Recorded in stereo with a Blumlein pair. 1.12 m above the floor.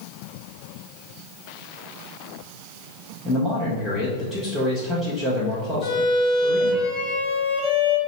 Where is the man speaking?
5° right, 0.9 m.